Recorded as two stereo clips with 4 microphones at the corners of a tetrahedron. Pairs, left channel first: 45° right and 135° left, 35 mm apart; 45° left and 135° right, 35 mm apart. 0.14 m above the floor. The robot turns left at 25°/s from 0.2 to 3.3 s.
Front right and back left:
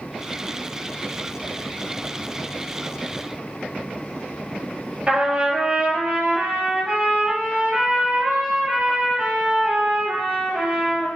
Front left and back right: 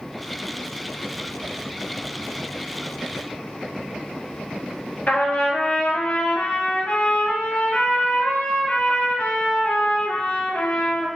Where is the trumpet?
80° left, 1.2 m.